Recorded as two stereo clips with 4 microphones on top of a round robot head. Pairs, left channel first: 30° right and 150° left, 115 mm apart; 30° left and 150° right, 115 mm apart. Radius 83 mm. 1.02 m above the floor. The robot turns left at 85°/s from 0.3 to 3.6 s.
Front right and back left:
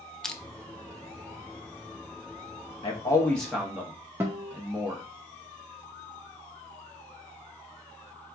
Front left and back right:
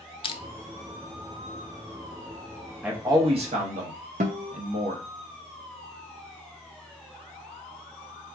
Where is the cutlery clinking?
No cutlery clinking in this recording.